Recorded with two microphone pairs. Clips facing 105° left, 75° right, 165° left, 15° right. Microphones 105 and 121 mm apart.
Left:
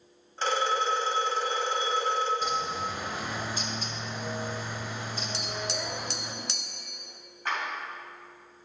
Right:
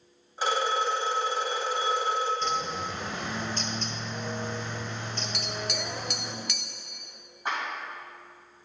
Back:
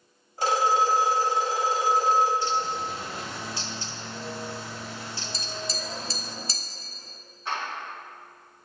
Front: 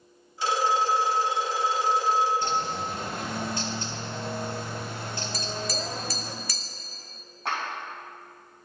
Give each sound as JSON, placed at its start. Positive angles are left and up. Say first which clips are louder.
{"t": 0.4, "sound": "a phone ringing", "louder": "even, back 2 dB", "azimuth_deg": -150, "distance_m": 1.6}
{"t": 2.4, "sound": "a bird", "louder": "even, even", "azimuth_deg": 25, "distance_m": 0.7}
{"t": 5.3, "sound": "tapping", "louder": "even, front 3 dB", "azimuth_deg": 130, "distance_m": 0.6}
{"t": 7.5, "sound": "a clap", "louder": "right 1 dB, front 1 dB", "azimuth_deg": 0, "distance_m": 3.5}